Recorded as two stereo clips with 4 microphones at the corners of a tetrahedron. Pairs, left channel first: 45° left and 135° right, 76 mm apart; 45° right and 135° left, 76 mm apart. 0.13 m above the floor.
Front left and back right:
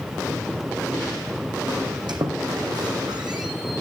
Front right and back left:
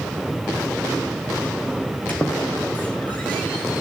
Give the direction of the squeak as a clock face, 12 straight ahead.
4 o'clock.